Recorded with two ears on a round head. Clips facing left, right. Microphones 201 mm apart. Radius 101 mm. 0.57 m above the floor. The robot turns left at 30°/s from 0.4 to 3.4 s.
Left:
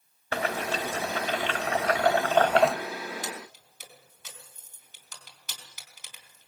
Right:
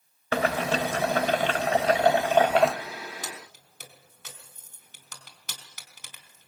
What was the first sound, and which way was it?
Boiling, 110° right.